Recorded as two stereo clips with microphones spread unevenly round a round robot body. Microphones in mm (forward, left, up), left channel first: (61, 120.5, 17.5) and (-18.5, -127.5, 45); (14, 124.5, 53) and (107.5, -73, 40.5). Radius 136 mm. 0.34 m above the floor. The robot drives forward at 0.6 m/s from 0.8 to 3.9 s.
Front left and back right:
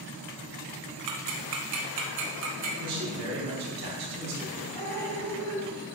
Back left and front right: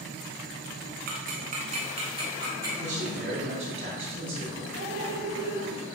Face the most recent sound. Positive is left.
turn(degrees=150)